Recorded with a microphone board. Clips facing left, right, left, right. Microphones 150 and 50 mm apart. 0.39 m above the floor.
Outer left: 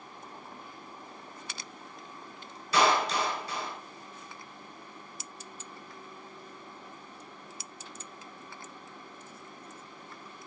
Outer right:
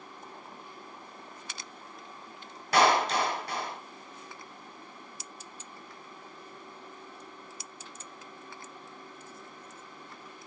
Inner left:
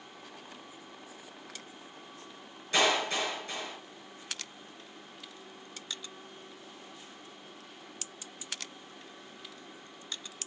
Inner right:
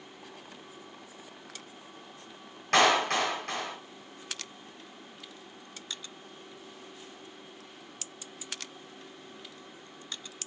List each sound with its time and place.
2.7 s a clap: 65° right (ahead or behind), 2 m